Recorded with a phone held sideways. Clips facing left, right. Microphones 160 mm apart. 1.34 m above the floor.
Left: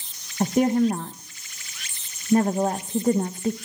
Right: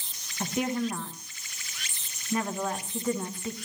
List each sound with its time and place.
0.4 s a woman speaking: 40° left (ahead or behind), 0.7 m